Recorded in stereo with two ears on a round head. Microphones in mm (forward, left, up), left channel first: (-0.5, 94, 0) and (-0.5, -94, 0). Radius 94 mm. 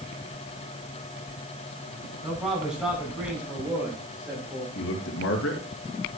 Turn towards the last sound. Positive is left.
turn(degrees=60)  # may be behind; listen again after turning